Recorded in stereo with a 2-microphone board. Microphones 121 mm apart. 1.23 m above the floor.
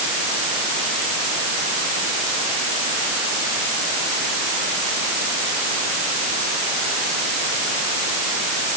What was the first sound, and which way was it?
Only background noise.